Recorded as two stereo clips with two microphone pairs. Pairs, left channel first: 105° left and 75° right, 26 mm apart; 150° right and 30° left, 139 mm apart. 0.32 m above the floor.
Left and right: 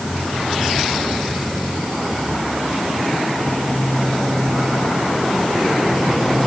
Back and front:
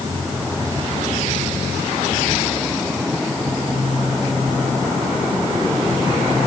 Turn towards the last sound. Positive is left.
No sound to turn to.